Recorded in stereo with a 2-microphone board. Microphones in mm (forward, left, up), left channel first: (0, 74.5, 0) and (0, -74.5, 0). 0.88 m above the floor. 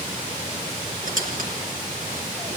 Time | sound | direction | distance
1.0 | a squeak | 65° right (ahead or behind) | 4 m